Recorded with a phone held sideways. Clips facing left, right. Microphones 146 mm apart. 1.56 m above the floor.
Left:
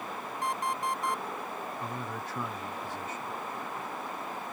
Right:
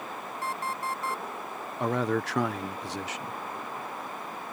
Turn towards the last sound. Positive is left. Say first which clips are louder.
# right 10 dB
turn(degrees=-80)